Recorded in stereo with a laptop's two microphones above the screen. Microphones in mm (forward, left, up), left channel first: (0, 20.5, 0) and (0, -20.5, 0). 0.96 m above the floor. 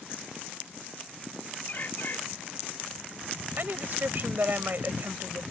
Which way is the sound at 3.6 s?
50° right (ahead or behind).